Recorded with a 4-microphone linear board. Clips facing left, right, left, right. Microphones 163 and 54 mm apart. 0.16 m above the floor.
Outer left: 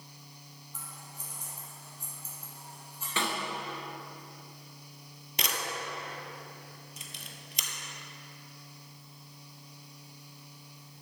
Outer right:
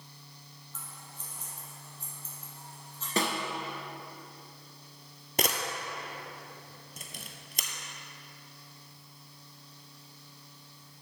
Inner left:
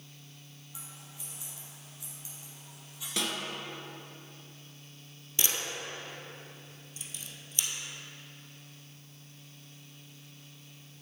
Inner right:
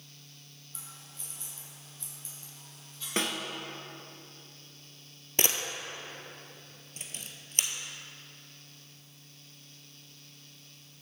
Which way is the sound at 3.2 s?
40° right (ahead or behind).